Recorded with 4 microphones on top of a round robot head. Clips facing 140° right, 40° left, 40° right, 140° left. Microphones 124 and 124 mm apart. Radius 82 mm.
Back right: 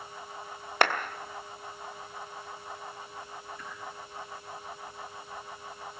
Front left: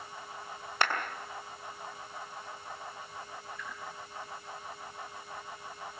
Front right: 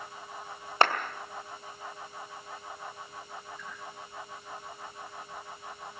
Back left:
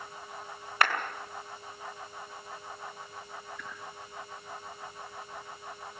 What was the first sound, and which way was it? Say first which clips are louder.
A clap: back right 5 dB, front right 3 dB; 105° right.